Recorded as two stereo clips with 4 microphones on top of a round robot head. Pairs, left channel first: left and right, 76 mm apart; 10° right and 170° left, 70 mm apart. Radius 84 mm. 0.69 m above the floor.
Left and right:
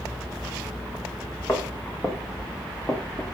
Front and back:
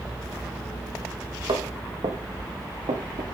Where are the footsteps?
150° left, 5 m; by 3.2 s 165° left, 5 m.